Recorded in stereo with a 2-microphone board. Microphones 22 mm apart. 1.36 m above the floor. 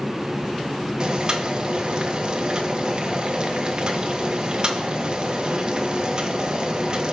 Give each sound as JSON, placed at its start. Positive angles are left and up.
{"t": 1.0, "sound": "boiling", "side_deg": -40, "distance_m": 1.4}